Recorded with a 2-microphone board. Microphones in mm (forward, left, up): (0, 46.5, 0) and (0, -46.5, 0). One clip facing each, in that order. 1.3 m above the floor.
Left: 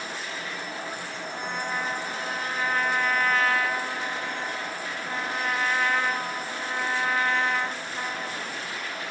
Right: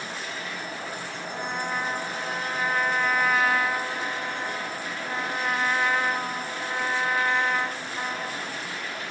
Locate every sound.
1.3 s a trumpet: 10° right (ahead or behind), 0.6 m